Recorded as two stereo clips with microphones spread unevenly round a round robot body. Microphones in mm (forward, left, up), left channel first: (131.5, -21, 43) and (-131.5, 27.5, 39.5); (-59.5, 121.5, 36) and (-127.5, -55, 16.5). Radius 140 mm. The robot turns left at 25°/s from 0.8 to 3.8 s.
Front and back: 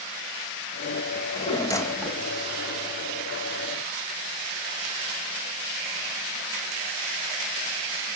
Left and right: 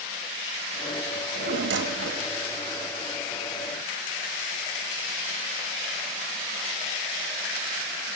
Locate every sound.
1.1 s a drawer: 75° right, 1.0 m; by 2.3 s 105° right, 1.0 m